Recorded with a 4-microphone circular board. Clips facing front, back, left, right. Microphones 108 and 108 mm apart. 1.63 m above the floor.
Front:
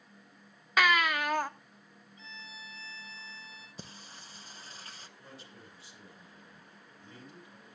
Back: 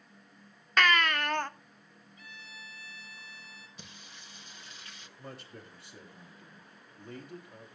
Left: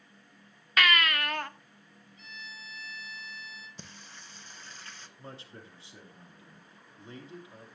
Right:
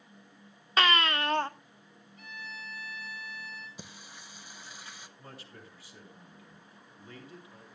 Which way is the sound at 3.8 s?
20° right.